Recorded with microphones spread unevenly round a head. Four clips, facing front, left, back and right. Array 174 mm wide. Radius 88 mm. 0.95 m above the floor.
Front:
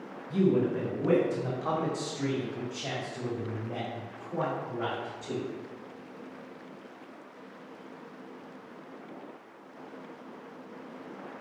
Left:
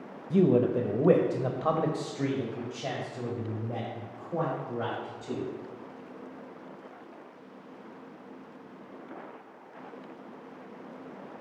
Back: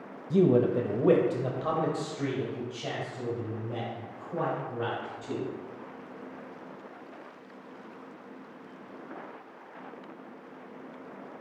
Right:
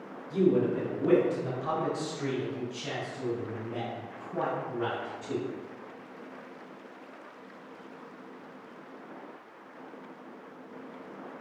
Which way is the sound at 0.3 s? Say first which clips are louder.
Left 2 dB, back 3 dB; 150° left.